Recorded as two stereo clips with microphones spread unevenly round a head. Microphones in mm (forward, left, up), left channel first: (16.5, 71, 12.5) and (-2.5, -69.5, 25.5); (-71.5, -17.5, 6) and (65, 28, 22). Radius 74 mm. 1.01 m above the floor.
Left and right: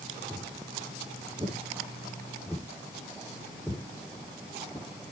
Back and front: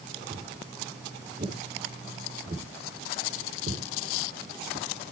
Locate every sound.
0.3 s footsteps: 35° right, 5 m; by 5.1 s 15° left, 2 m